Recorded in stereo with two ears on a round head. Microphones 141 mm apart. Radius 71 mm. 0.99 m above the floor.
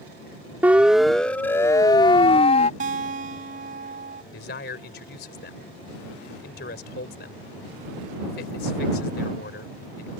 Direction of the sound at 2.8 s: 60° right (ahead or behind).